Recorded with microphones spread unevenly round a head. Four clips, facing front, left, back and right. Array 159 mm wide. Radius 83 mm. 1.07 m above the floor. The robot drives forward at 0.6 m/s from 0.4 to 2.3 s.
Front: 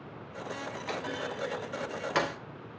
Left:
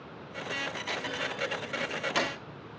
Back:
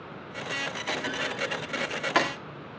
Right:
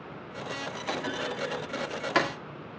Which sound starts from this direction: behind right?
A clunk, at 0.9 s.